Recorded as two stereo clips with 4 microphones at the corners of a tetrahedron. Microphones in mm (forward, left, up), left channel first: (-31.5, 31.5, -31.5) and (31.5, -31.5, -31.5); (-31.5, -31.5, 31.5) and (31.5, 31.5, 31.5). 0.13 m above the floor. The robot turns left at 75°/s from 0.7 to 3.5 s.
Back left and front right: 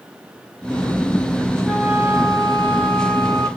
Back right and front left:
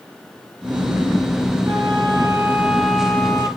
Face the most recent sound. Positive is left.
turn(degrees=-95)